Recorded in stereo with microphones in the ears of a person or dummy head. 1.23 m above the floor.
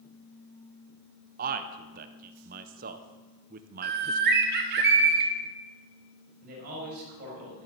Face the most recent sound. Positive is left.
turn(degrees=-50)  # may be behind; listen again after turning